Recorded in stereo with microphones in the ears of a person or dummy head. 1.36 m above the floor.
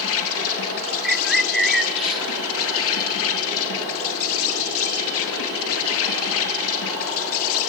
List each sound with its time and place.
0.0 s an insect: 70° left (ahead or behind), 2.0 m
1.0 s a bird: centre (ahead or behind), 0.7 m